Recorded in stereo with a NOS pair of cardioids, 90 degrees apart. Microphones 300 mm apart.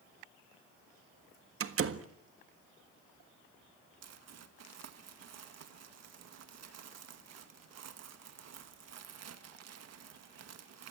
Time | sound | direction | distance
1.6 | a door slam | 45° right | 1.5 m
4.0 | crumpling | 60° right | 1.9 m